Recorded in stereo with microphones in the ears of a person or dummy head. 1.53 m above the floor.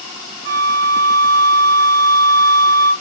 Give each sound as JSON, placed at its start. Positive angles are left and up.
{"t": 0.5, "sound": "a flute", "side_deg": -60, "distance_m": 1.2}